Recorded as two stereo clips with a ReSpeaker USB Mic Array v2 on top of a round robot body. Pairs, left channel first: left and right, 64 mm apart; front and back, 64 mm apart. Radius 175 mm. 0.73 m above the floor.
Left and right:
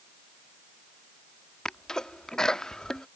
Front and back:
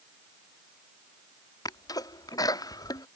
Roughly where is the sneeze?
Ahead.